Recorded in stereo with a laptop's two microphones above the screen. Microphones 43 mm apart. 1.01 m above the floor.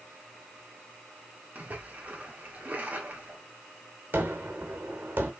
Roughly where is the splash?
Right.